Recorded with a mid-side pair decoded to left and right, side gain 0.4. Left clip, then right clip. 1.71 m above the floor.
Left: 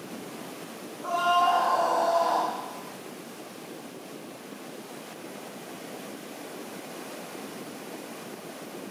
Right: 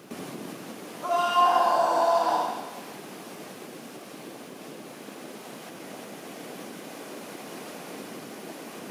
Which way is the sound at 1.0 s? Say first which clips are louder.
Right 2 dB; 50° right.